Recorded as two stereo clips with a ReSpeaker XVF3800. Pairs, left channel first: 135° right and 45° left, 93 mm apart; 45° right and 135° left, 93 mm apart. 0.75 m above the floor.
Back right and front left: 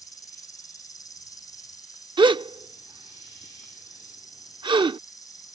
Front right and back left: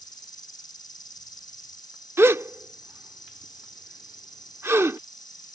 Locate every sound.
0.0 s an insect: 85° right
2.2 s a gasp: 75° left